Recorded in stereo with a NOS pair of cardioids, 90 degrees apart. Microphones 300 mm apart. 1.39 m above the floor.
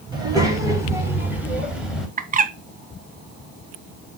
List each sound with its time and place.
0.1 s a child speaking: 15° right, 5 m; by 2.1 s straight ahead, 5 m
2.2 s a bird: 30° right, 1.1 m